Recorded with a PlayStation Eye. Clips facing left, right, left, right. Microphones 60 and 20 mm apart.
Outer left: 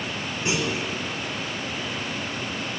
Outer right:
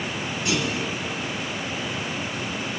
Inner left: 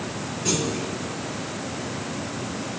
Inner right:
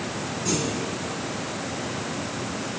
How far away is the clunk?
About 4 m.